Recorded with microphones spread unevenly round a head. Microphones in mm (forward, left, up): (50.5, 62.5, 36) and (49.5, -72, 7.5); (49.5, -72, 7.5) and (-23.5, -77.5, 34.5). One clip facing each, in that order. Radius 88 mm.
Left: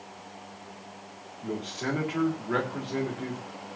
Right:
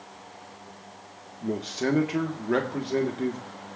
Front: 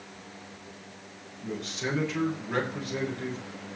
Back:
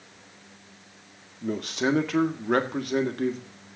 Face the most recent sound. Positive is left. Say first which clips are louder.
# right 5 dB, back 7 dB
turn(degrees=-155)